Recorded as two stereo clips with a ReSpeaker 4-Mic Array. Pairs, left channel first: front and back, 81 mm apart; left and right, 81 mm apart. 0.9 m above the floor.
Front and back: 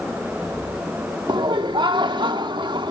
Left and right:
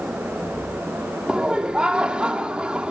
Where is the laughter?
165° right, 1.7 m.